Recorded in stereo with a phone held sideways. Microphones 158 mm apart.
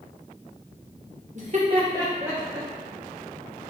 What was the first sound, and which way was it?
Laughter, 50° right (ahead or behind).